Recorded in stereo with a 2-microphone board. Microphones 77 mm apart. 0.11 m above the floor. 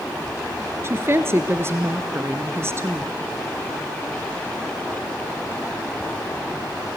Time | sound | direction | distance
0.8 | a woman speaking | 35° right (ahead or behind) | 1.6 m